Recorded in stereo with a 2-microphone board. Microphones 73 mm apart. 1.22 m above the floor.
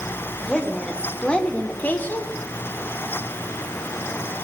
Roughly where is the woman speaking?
Centre.